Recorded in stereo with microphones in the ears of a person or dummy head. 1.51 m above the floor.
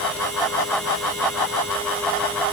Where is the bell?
No bell in this recording.